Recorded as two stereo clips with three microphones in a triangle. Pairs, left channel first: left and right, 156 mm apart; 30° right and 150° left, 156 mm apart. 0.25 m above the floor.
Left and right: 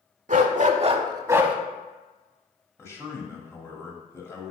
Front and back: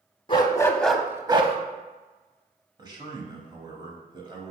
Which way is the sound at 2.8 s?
140° left.